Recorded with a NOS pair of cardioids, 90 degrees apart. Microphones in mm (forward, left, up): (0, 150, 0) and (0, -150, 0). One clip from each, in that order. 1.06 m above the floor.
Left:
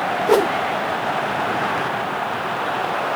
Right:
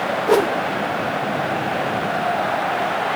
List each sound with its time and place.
0.3 s a whoosh: 5° left, 0.7 m